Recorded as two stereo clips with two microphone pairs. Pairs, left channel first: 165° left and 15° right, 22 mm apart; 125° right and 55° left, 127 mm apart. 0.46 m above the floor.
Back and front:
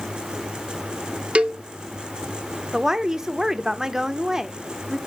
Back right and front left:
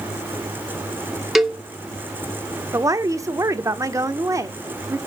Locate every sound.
1.4 s a cowbell: 35° right, 0.8 m
2.7 s a woman speaking: 15° left, 0.8 m